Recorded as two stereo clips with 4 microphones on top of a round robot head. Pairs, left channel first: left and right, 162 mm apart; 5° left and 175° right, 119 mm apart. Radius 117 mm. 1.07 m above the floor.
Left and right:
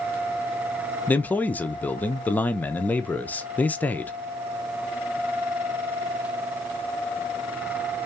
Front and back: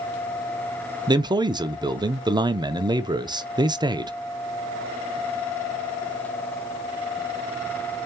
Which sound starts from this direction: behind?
A man speaking, at 1.1 s.